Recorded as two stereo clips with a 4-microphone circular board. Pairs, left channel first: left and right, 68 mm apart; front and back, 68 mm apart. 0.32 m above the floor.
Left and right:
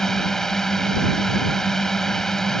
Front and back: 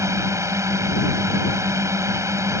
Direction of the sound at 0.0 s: 170° left.